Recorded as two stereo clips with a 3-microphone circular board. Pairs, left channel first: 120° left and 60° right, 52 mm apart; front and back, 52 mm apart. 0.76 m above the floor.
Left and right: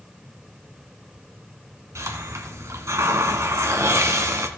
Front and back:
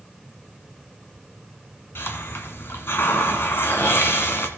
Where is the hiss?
40° right, 1.6 m.